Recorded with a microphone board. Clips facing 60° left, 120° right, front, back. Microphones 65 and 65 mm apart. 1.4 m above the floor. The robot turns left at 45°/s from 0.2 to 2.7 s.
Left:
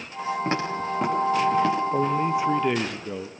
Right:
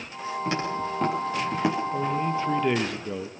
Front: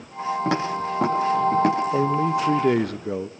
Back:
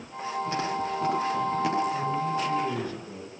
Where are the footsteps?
5° left, 8 m; by 1.8 s 50° right, 7.5 m.